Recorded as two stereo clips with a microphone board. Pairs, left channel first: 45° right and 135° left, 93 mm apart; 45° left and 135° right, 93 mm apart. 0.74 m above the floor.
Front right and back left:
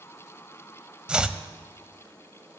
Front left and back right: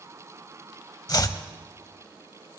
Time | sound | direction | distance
1.1 | chopping | 60° left | 0.6 m